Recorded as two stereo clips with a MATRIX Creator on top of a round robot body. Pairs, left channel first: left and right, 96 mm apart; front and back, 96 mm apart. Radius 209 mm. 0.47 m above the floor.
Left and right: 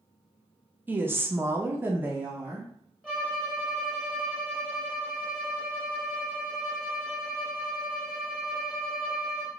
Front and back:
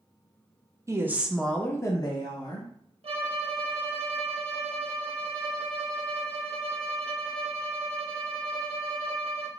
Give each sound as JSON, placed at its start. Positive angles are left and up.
{"t": 0.9, "sound": "a woman speaking", "azimuth_deg": -145, "distance_m": 0.8}
{"t": 3.0, "sound": "a violin", "azimuth_deg": 175, "distance_m": 0.8}